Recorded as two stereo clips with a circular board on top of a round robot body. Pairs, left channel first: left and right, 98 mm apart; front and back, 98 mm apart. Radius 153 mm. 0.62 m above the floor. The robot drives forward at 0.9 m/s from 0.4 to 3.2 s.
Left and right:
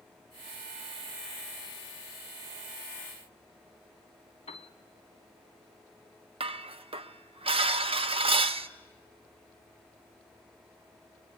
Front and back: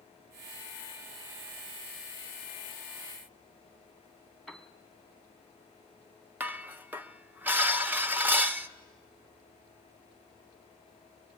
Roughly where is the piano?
Left.